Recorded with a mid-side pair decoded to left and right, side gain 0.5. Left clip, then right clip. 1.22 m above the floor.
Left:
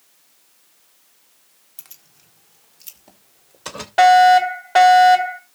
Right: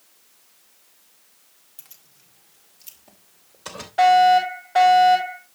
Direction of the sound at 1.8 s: 35° left.